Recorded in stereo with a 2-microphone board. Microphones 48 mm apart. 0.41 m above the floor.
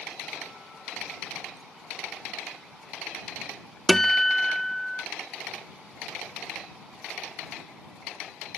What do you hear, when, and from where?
3.9 s a guitar: 5° left (ahead or behind)